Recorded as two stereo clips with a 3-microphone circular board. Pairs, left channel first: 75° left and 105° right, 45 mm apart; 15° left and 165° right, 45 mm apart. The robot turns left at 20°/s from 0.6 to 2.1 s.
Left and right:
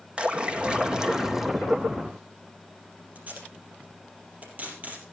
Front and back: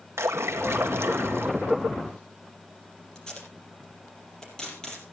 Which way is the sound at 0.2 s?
175° right.